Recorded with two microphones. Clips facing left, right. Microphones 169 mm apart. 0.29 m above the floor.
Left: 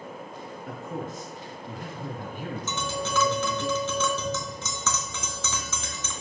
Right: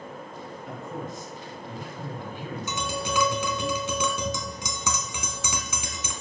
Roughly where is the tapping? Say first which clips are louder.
Right 1 dB; centre.